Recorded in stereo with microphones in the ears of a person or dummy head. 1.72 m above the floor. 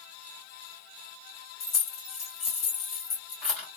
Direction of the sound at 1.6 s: 40° left (ahead or behind).